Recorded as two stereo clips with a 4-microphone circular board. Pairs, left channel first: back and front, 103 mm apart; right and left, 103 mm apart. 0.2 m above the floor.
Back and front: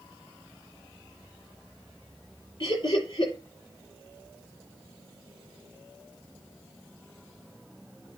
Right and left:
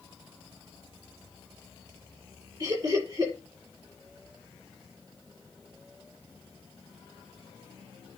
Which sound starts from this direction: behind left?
Laughter, at 2.6 s.